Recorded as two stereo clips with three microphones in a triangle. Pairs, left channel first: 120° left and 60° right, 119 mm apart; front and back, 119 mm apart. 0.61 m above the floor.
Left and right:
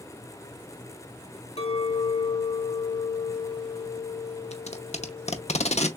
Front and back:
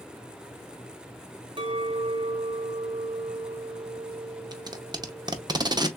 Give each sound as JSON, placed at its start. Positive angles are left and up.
{"t": 1.6, "sound": "a clink", "azimuth_deg": 135, "distance_m": 1.3}
{"t": 4.5, "sound": "tape being pulled", "azimuth_deg": 130, "distance_m": 0.6}